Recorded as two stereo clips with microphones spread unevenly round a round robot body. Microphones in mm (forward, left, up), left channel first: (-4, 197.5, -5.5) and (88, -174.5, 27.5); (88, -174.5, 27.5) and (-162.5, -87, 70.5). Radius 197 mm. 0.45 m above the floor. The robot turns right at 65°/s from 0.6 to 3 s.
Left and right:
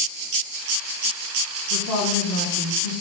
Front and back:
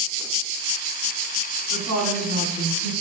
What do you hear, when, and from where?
1.7 s a woman speaking: straight behind, 4 m; by 2.9 s 100° right, 4 m